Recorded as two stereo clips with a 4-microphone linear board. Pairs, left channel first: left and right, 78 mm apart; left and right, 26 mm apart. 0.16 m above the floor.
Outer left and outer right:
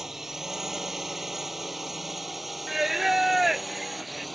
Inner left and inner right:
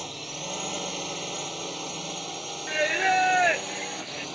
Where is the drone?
5° right (ahead or behind); by 4.4 s centre (ahead or behind).